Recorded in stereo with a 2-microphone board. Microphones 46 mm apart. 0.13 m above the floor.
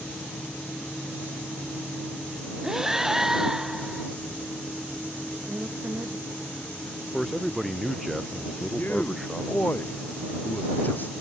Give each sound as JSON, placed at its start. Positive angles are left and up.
{"t": 2.6, "sound": "breathing", "side_deg": -10}
{"t": 5.5, "sound": "a woman speaking", "side_deg": -50}
{"t": 7.1, "sound": "a man speaking", "side_deg": 0}
{"t": 8.8, "sound": "a man speaking", "side_deg": 45}